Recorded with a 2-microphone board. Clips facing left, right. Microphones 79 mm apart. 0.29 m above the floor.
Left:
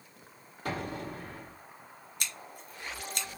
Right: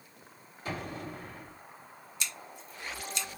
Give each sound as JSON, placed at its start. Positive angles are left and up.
{"t": 0.7, "sound": "an explosion", "side_deg": 65, "distance_m": 4.0}
{"t": 2.2, "sound": "scissors", "side_deg": 55, "distance_m": 1.1}